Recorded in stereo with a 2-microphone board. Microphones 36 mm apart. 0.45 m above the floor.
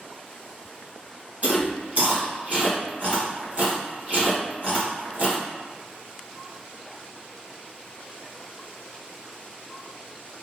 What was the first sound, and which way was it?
Chewing, 40° right (ahead or behind).